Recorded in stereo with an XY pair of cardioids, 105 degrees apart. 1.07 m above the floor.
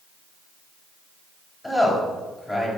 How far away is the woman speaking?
About 6 m.